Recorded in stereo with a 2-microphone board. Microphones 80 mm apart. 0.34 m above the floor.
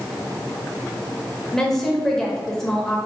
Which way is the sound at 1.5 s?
5° left (ahead or behind).